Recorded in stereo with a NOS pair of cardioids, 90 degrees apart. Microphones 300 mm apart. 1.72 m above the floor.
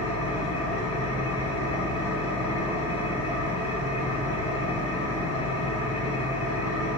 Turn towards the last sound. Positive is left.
turn(degrees=55)